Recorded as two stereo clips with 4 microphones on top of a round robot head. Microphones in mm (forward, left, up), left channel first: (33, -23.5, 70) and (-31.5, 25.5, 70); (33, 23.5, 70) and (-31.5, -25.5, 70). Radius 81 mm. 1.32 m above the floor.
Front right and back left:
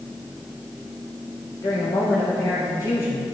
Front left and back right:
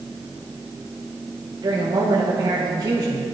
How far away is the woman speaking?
About 1.0 m.